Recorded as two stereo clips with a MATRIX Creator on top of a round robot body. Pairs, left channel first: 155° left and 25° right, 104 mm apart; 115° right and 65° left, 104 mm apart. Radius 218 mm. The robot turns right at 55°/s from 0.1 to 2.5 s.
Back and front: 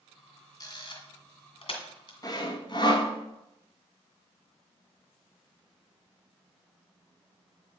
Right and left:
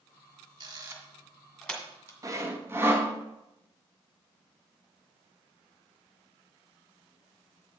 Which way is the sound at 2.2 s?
115° left.